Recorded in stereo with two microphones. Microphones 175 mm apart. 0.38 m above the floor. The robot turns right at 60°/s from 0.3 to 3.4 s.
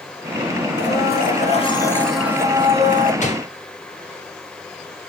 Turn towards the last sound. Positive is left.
turn(degrees=40)  # may be behind; listen again after turning